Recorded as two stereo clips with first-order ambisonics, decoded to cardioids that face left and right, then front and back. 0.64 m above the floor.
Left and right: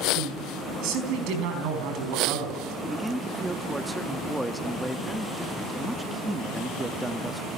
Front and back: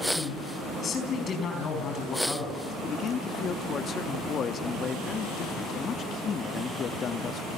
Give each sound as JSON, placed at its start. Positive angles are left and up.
{"t": 0.1, "sound": "a man speaking", "azimuth_deg": -65, "distance_m": 4.5}
{"t": 2.8, "sound": "a man speaking", "azimuth_deg": -5, "distance_m": 0.6}